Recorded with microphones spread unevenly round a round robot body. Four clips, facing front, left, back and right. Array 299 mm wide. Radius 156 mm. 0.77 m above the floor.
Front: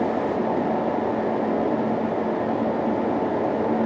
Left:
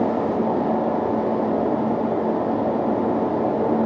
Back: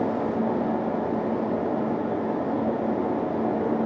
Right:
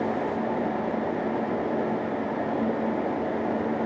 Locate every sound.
Only background noise.